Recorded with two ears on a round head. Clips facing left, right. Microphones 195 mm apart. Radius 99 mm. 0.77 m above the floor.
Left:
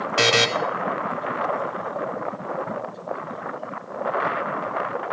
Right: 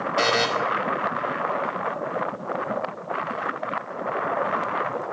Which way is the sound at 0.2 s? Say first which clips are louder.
Left 2 dB; 40° left (ahead or behind).